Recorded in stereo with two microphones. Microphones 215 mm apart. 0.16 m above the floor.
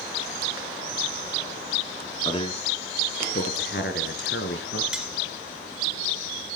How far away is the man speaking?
About 1.8 m.